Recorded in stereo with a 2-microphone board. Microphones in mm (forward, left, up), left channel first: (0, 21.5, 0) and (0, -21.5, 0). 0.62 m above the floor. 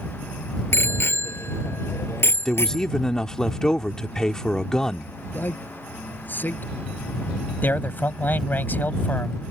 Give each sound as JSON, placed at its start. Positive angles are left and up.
{"t": 0.7, "sound": "a bicycle bell", "side_deg": 65}
{"t": 2.5, "sound": "a man speaking", "side_deg": 15}
{"t": 5.3, "sound": "a man speaking", "side_deg": 45}
{"t": 7.6, "sound": "a man speaking", "side_deg": 45}